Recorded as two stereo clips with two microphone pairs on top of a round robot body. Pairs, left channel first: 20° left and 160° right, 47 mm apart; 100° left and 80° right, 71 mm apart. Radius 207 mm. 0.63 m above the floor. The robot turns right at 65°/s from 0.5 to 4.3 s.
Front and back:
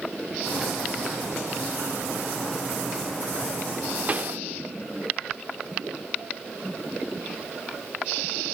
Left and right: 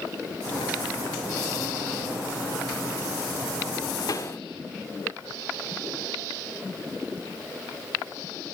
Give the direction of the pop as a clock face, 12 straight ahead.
7 o'clock.